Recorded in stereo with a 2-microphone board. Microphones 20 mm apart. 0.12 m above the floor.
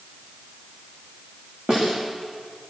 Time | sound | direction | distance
1.7 | a snare drum | 40° right (ahead or behind) | 9.5 m